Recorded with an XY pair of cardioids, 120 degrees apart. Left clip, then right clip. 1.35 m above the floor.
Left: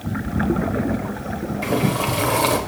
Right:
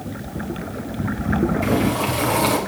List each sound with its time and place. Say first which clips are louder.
1.6 s boiling: right 1 dB; 10° left, 1.0 m